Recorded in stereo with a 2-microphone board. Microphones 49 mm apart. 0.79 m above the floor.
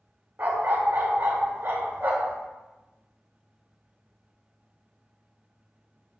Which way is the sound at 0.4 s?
45° right (ahead or behind).